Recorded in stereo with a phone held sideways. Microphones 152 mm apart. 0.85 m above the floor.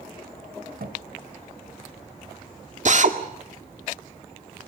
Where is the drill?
55° right (ahead or behind), 1.8 m.